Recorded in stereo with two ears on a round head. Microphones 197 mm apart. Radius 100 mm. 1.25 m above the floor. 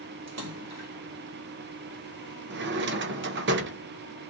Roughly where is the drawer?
Right.